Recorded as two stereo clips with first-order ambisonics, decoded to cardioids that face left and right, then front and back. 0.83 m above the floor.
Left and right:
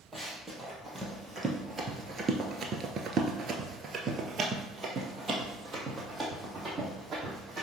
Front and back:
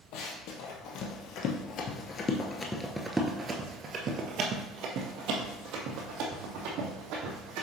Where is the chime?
No chime in this recording.